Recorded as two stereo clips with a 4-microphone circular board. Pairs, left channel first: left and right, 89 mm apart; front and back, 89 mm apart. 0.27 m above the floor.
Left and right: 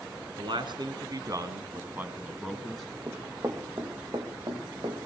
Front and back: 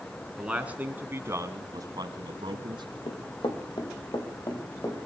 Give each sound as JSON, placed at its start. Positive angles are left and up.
{"t": 0.4, "sound": "a man speaking", "azimuth_deg": -100, "distance_m": 3.0}
{"t": 3.1, "sound": "running footsteps", "azimuth_deg": -30, "distance_m": 3.0}